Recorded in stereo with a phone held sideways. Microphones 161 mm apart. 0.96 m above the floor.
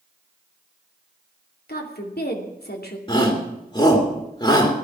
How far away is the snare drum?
No snare drum in this recording.